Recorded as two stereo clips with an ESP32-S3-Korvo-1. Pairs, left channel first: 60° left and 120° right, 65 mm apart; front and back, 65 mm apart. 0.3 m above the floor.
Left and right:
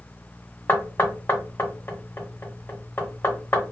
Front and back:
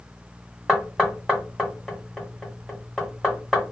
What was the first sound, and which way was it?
Knocking, 95° left.